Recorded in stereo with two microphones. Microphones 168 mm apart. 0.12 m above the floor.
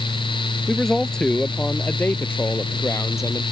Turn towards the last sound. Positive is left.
turn(degrees=20)  # may be behind; listen again after turning